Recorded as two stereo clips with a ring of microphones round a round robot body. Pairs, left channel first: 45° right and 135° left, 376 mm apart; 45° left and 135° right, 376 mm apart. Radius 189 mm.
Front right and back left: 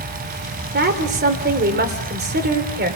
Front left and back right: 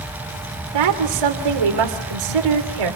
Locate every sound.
0.7 s a woman speaking: 160° right, 3 m